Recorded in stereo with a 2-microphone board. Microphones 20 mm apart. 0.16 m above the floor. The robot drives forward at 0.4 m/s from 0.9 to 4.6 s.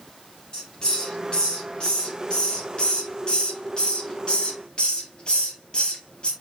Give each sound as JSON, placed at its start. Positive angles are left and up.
{"t": 0.5, "sound": "a hiss", "side_deg": 35, "distance_m": 5.0}